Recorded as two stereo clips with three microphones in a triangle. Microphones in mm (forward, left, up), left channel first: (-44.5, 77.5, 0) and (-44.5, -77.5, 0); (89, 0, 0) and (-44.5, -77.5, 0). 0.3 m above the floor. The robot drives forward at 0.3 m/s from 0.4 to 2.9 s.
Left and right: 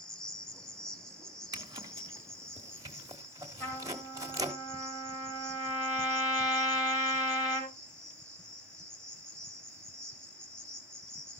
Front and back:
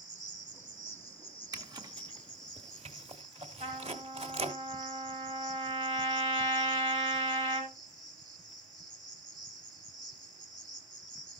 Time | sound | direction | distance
0.0 | an insect | 175° left | 1.7 m
1.5 | a zipper | 120° right | 1.1 m
3.6 | a trumpet | 160° left | 5 m